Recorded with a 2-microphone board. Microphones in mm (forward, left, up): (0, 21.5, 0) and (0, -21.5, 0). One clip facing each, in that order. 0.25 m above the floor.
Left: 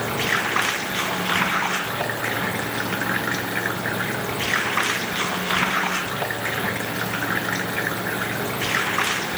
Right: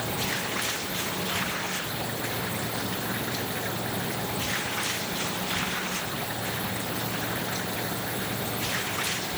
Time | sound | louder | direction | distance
0.0 | running water | left 8 dB | 75° left (ahead or behind) | ?